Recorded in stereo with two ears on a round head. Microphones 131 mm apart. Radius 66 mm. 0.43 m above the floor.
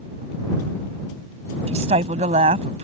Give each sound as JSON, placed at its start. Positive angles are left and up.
{"t": 1.7, "sound": "a woman speaking", "side_deg": -45}